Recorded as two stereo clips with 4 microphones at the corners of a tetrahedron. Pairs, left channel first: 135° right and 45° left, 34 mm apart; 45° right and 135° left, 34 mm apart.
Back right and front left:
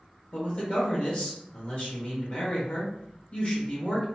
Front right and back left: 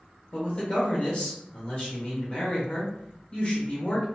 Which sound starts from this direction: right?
A man speaking, at 0.3 s.